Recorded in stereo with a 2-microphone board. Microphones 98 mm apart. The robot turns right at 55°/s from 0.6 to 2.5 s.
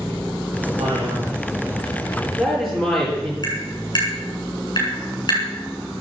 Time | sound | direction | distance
0.8 | a man speaking | 85° right | 10 m
3.4 | tapping | 45° left (ahead or behind) | 8.5 m